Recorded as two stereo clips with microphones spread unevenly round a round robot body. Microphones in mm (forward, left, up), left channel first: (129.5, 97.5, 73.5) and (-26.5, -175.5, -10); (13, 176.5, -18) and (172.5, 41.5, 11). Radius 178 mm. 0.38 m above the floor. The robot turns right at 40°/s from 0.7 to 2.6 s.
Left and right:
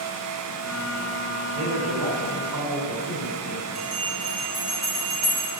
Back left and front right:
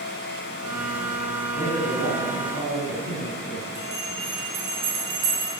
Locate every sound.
1.6 s a man speaking: 120° right, 3 m; by 3.6 s 80° right, 3 m
3.8 s a bell: 40° right, 3 m